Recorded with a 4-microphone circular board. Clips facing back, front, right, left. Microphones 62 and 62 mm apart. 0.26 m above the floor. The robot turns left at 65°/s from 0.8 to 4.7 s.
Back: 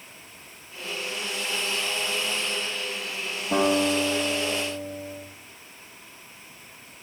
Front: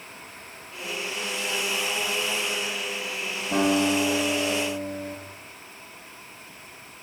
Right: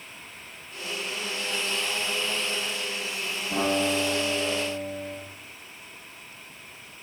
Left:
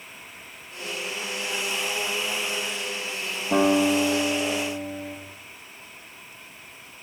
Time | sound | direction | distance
3.5 | a guitar | 115° left | 6 m